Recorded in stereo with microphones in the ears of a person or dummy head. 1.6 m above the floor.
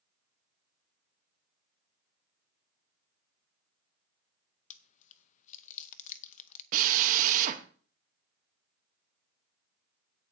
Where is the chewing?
40° left (ahead or behind), 0.7 m.